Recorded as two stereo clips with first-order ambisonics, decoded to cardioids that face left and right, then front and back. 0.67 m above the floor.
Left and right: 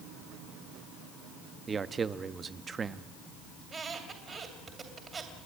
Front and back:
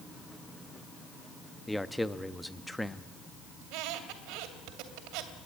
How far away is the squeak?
About 2.5 m.